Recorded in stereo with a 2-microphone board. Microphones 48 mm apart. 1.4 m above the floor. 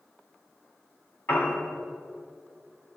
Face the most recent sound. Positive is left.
turn(degrees=55)  # may be behind; listen again after turning